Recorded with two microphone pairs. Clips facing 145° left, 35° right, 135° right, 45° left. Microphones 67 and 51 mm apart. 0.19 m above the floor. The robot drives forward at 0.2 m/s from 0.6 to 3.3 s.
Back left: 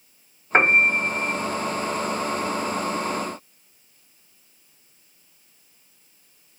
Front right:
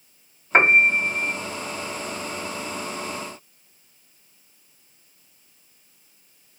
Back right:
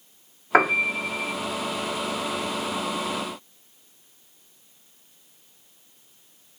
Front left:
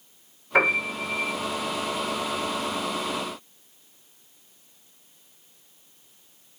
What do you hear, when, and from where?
0.5 s a piano: 135° right, 5 m